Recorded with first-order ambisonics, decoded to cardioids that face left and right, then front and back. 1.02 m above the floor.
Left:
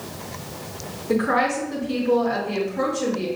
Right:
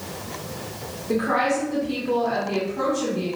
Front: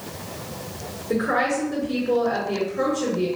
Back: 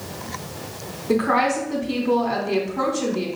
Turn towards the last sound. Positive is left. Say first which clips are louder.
# left 1 dB, back 3 dB
turn(degrees=175)